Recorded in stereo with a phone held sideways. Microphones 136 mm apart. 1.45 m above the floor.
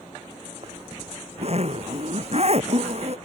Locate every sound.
0.6 s a zipper: 50° right (ahead or behind)